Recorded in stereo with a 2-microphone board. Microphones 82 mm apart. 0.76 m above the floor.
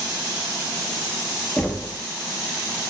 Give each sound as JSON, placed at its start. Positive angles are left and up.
{"t": 1.6, "sound": "knocking", "side_deg": 15, "distance_m": 0.8}